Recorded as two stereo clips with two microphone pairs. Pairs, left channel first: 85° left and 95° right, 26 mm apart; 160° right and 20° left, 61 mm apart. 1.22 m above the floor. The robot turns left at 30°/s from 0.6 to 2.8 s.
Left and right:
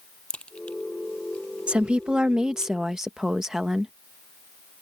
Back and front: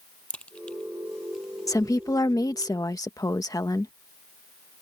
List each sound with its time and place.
0.3 s a crack: 130° left; by 2.7 s 70° left
1.7 s a woman speaking: 135° right; by 3.9 s 165° right